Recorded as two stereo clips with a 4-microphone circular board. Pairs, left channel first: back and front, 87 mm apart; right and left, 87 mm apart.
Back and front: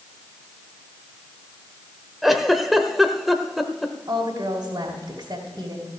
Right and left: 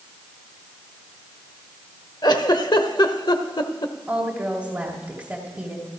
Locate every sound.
2.2 s a giggle: 90° right, 0.9 m
4.1 s a woman speaking: 20° left, 2.5 m